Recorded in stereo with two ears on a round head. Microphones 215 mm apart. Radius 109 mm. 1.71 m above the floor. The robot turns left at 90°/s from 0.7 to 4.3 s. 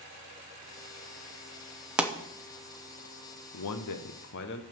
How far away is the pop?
About 0.8 m.